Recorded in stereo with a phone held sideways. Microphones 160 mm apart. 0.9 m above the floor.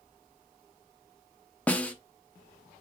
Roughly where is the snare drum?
Centre.